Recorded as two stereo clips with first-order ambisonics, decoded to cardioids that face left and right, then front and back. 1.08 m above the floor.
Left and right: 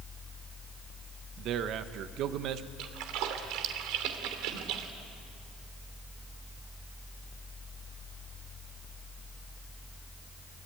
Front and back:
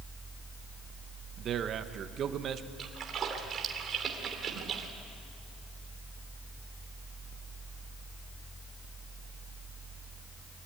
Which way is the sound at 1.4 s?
130° right.